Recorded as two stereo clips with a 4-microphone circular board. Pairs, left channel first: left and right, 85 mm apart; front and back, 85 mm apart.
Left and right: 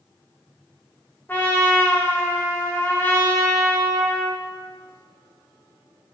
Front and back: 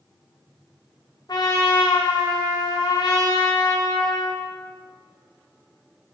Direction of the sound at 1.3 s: 25° left.